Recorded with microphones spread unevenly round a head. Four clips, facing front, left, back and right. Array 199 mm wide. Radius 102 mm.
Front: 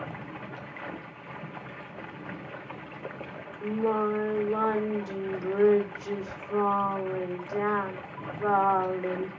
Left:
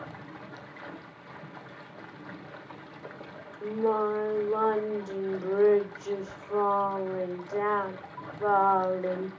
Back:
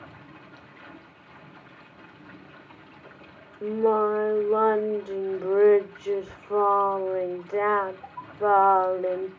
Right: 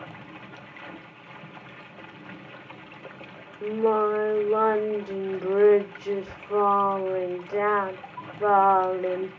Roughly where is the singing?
Behind right.